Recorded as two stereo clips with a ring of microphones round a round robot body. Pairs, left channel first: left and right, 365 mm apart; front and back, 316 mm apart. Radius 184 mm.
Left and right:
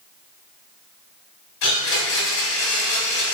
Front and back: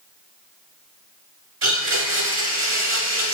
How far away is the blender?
About 1.3 m.